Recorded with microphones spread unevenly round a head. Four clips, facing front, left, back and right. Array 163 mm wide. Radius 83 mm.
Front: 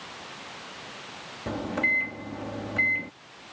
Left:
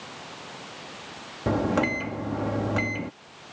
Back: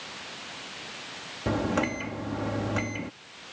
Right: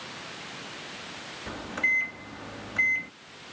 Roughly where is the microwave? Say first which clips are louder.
Left 9 dB, back 3 dB; left.